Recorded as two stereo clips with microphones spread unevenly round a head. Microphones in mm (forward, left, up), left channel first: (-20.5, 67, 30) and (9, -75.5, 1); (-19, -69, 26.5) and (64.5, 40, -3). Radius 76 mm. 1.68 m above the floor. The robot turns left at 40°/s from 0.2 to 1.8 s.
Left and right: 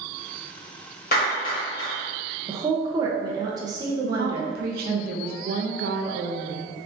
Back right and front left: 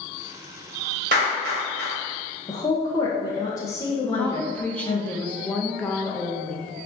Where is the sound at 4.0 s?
60° right, 0.5 m.